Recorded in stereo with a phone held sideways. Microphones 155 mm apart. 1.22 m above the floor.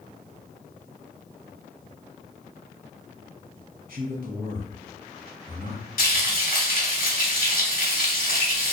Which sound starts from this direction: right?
A man speaking, at 3.9 s.